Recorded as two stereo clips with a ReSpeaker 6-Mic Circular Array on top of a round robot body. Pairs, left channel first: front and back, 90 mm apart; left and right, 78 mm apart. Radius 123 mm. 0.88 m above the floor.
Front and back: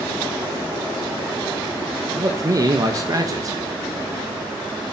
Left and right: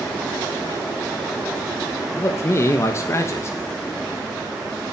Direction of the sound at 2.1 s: 140° left.